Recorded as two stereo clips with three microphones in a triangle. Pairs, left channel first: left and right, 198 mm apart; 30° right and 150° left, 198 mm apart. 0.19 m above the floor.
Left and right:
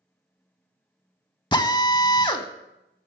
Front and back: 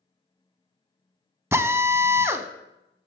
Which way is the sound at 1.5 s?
95° left.